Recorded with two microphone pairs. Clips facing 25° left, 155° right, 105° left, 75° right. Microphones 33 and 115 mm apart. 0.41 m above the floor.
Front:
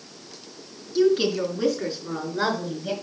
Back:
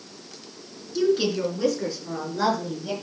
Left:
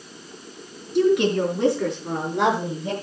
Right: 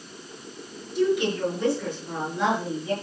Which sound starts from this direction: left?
A woman speaking, at 0.9 s.